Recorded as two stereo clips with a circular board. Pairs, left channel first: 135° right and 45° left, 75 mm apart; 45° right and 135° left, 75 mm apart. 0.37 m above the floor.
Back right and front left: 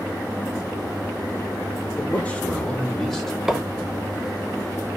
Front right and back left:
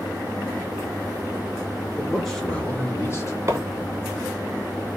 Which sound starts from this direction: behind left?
A microwave, at 3.5 s.